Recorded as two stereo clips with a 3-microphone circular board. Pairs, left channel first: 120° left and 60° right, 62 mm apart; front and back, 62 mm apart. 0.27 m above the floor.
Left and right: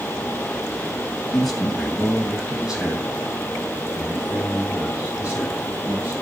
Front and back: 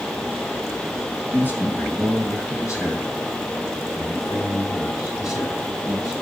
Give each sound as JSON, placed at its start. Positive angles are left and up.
{"t": 1.3, "sound": "a man speaking", "azimuth_deg": 40, "distance_m": 1.9}